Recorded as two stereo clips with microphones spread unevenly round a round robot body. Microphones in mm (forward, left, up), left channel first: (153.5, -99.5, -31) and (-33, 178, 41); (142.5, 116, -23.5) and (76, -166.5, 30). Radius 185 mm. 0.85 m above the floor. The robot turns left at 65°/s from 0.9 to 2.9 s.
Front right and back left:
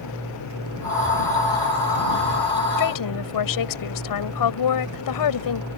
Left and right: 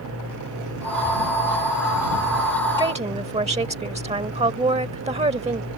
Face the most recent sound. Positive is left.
turn(degrees=-35)